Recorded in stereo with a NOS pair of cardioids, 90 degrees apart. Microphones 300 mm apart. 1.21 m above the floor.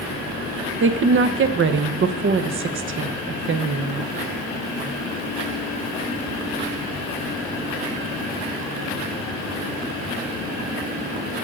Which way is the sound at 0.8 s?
40° right.